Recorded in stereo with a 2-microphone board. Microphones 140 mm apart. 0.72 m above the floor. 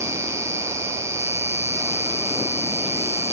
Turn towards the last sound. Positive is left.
turn(degrees=-20)  # may be behind; listen again after turning